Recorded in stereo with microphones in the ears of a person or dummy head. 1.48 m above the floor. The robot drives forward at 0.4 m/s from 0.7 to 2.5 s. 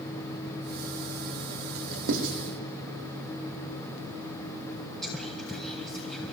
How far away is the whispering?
About 1.0 m.